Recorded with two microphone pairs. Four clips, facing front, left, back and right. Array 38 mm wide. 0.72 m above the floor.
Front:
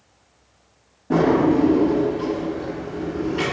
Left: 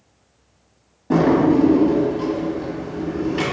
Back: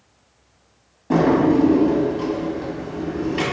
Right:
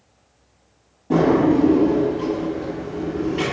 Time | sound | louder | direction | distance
1.1 | a drawer | left 1 dB, back 1 dB | 145° left | 1.3 m